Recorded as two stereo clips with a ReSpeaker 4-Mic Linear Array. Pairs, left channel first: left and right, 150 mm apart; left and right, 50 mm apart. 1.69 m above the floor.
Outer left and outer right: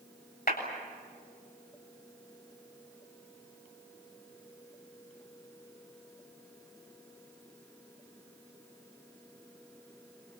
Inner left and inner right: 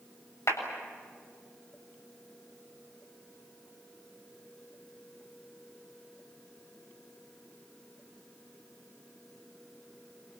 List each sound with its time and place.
0.5 s a clap: 85° left, 7.5 m